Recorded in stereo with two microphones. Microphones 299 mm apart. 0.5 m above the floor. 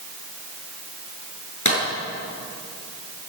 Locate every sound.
1.6 s a clap: 85° left, 8 m